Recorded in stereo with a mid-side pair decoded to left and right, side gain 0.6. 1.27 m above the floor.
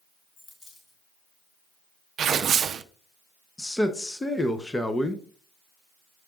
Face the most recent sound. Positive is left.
turn(degrees=15)